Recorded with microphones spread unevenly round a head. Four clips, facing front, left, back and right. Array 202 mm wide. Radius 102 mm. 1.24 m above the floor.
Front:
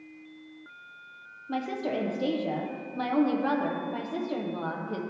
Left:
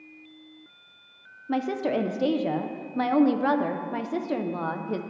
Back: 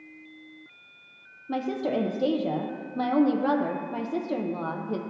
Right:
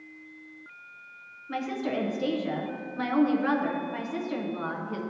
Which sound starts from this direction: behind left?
A woman speaking, at 1.5 s.